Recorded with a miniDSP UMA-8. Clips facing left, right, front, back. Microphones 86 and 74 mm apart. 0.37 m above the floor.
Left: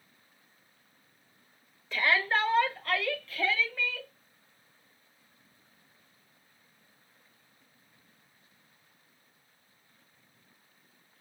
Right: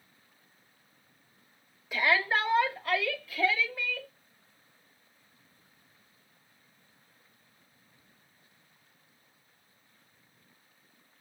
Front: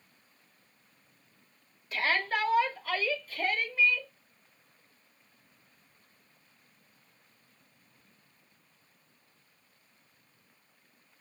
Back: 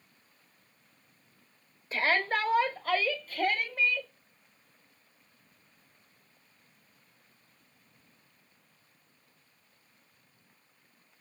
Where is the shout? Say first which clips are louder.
Even, back 2 dB; 160° right, 1.4 m; by 4.1 s 165° right, 2.5 m.